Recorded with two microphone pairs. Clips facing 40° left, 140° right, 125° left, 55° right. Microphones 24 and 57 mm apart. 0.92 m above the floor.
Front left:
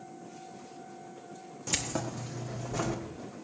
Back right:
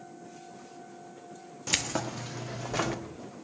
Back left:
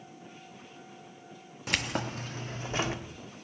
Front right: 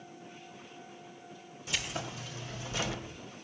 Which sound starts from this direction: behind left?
Keys jangling, at 1.7 s.